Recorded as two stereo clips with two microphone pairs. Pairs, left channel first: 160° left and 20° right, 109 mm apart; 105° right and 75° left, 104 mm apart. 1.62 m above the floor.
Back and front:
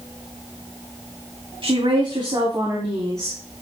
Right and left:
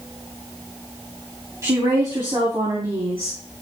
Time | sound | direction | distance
1.6 | a woman speaking | 15° left | 3.5 m